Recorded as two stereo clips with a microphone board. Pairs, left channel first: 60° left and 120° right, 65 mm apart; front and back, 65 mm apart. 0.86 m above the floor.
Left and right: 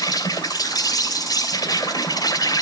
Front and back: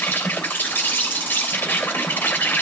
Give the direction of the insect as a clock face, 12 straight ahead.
10 o'clock.